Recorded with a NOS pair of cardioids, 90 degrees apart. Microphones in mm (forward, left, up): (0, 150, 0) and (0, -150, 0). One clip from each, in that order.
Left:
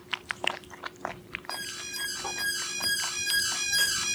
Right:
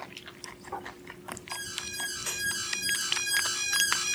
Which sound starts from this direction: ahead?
An alarm, at 1.5 s.